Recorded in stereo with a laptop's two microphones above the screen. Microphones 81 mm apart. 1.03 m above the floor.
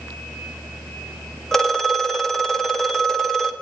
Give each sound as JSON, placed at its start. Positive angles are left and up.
{"t": 1.5, "sound": "a phone ringing", "side_deg": 5, "distance_m": 0.6}